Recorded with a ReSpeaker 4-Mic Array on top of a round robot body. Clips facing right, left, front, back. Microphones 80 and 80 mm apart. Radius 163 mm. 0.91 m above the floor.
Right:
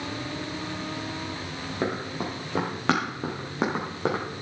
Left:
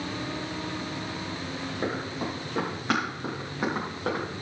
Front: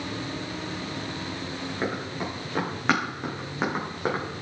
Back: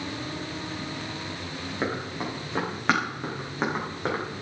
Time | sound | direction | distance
1.8 | running footsteps | 100° right | 5 m